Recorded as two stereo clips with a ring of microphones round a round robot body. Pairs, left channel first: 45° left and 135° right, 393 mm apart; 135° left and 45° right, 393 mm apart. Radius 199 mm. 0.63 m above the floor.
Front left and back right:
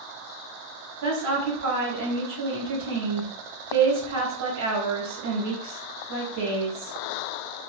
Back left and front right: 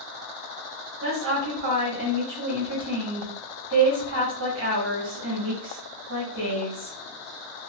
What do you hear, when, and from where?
1.0 s a woman speaking: 100° right, 0.9 m